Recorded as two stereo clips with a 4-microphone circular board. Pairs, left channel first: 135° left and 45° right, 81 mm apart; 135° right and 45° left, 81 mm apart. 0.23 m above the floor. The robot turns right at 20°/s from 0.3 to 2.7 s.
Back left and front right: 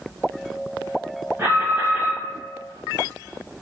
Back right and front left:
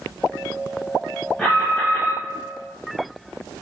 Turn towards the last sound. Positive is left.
turn(degrees=-40)